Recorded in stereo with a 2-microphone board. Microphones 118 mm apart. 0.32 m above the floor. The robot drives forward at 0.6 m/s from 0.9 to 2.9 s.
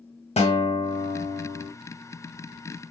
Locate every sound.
0.4 s a guitar: 55° left (ahead or behind), 0.6 m; by 1.7 s 50° left (ahead or behind), 0.7 m